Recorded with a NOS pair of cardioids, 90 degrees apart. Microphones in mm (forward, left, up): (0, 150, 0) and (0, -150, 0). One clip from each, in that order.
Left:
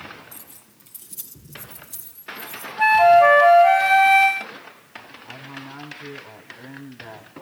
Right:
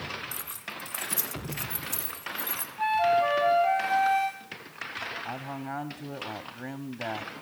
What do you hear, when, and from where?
0.3 s keys jangling: 65° right, 3.5 m; by 2.7 s 75° right, 5.5 m
2.8 s a flute: 60° left, 0.8 m
5.2 s a man speaking: 65° right, 2.5 m